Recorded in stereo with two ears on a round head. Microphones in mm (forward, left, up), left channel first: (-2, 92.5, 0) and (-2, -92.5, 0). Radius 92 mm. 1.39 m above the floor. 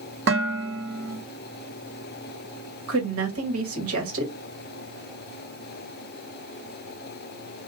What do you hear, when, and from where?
0.3 s dishes clattering: 60° right (ahead or behind), 1.5 m
2.9 s a woman speaking: 75° right (ahead or behind), 1.6 m